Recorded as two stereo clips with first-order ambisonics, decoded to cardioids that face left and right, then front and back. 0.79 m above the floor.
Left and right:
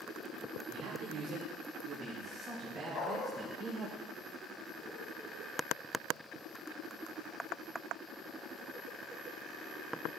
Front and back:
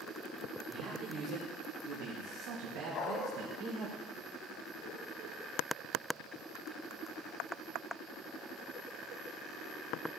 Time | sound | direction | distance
0.7 | a man speaking | 120° right | 2.5 m
2.9 | a dog barking | 50° left | 1.3 m